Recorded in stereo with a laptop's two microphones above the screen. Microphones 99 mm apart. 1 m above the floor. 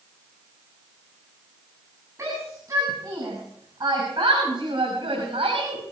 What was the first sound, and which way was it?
A shout, 30° right (ahead or behind).